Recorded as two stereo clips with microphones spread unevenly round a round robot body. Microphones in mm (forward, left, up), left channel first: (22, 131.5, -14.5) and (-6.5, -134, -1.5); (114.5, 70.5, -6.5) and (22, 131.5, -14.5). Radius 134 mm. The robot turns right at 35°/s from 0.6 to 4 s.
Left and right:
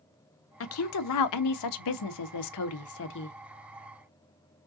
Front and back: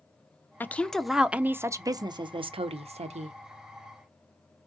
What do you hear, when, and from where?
0.6 s a woman speaking: 40° left, 0.7 m; by 3.4 s 140° left, 0.7 m